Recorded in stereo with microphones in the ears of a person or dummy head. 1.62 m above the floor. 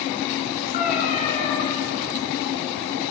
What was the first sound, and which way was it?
A cat meowing, 40° left (ahead or behind).